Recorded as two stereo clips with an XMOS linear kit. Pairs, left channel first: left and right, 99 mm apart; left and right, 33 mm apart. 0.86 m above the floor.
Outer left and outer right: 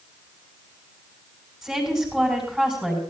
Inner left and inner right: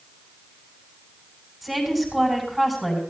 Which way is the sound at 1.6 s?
5° right (ahead or behind).